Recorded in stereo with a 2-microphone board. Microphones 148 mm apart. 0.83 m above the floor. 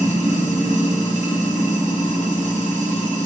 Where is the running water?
60° right (ahead or behind), 1.0 m.